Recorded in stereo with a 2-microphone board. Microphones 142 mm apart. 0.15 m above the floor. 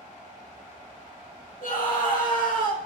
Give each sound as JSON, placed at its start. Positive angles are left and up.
{"t": 1.6, "sound": "a scream", "side_deg": 70, "distance_m": 4.5}